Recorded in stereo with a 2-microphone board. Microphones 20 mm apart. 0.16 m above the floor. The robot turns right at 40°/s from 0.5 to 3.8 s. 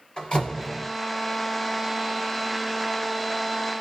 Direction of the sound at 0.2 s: 55° left (ahead or behind).